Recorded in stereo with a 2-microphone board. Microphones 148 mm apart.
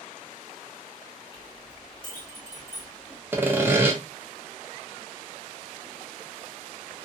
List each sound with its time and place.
1.3 s a clink: 30° left (ahead or behind), 1.4 m
3.3 s sawing: 15° right (ahead or behind), 0.6 m